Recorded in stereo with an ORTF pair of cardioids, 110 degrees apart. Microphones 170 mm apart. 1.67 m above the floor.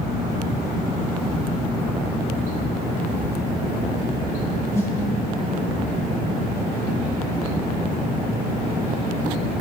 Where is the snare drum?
15° left, 2.5 m.